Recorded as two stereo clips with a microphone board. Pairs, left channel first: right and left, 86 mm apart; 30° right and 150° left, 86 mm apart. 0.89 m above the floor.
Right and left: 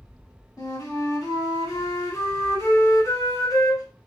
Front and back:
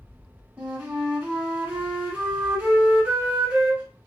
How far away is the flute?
About 1.0 m.